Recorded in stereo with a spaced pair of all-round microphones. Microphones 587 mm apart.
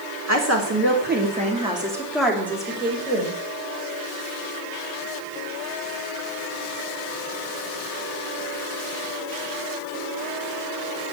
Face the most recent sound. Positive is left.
turn(degrees=15)  # may be behind; listen again after turning